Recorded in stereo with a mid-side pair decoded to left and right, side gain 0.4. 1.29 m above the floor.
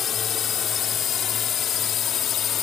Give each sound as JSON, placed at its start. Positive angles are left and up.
{"t": 0.0, "sound": "a drone", "azimuth_deg": 65}